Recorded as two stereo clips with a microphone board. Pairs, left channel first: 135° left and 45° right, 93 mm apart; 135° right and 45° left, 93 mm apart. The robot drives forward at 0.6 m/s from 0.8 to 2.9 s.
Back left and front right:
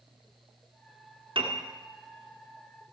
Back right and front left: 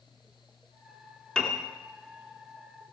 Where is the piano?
55° right, 1.7 m; by 1.6 s 60° right, 1.7 m.